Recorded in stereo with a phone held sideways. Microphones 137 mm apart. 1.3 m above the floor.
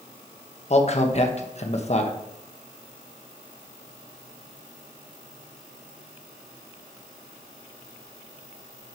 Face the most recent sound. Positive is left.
turn(degrees=55)  # may be behind; listen again after turning